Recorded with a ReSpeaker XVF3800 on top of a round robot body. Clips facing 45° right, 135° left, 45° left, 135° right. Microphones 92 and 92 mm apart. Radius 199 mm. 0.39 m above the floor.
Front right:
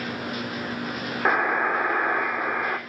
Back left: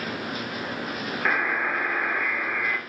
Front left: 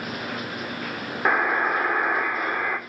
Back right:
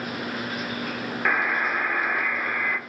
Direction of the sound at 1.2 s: 5° right.